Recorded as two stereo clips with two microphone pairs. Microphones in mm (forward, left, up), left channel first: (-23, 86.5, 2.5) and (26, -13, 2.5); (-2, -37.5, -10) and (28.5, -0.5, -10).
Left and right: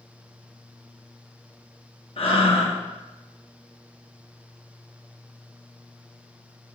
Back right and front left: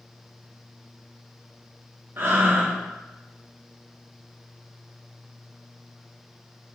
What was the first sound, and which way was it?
Breathing, 85° left.